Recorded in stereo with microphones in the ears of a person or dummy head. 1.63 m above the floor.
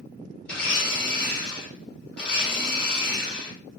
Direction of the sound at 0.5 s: 15° left (ahead or behind).